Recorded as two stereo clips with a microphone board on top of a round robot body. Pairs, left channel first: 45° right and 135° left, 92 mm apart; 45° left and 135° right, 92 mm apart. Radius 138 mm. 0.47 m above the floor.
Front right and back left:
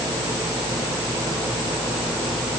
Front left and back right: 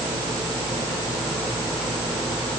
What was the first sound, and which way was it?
Only background noise.